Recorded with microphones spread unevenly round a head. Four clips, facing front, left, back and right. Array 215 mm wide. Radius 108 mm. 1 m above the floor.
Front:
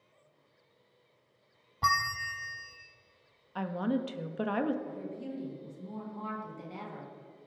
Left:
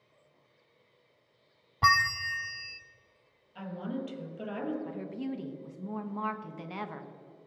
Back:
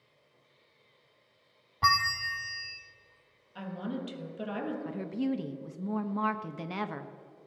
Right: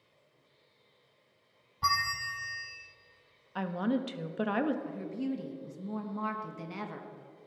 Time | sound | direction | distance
1.8 | a bell | 95° left | 0.6 m
3.5 | a woman speaking | 60° right | 1.3 m
4.8 | a woman speaking | 175° right | 1.1 m